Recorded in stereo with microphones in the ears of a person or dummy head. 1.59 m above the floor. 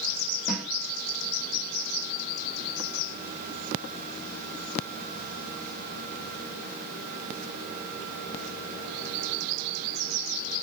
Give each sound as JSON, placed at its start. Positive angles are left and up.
{"t": 0.5, "sound": "a snare drum", "side_deg": -5, "distance_m": 0.9}